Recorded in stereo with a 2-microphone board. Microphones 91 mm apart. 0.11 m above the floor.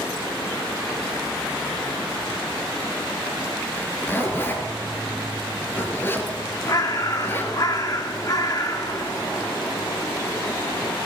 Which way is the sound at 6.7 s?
45° left (ahead or behind).